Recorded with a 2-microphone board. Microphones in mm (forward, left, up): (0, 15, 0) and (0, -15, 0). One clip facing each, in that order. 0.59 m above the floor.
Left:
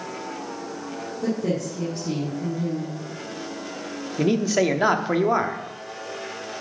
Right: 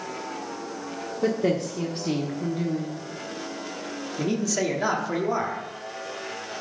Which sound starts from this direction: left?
A man speaking, at 4.2 s.